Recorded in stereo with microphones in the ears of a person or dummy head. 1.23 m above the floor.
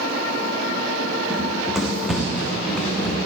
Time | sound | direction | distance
1.3 | running footsteps | 5° right (ahead or behind) | 3 m